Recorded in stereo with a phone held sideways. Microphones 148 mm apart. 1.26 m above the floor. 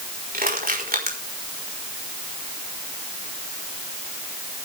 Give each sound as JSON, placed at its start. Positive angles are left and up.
{"t": 0.3, "sound": "crushing", "side_deg": -80, "distance_m": 4.5}